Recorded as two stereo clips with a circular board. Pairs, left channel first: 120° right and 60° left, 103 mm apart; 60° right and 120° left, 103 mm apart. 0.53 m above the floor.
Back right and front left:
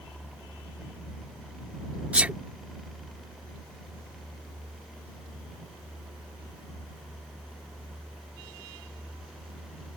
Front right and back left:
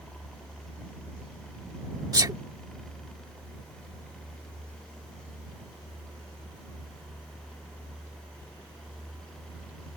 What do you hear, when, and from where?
2.1 s a sneeze: 130° left